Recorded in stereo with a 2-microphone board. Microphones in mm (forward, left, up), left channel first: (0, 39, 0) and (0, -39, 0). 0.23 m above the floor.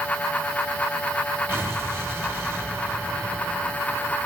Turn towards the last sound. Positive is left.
turn(degrees=-30)  # may be behind; listen again after turning